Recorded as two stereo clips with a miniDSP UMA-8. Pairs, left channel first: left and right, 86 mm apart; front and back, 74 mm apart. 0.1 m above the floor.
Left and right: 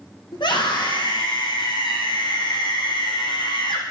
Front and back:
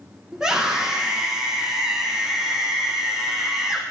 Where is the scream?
100° left, 5.5 m.